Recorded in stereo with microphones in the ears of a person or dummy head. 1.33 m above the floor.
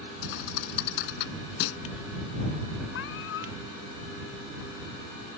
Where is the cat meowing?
70° left (ahead or behind).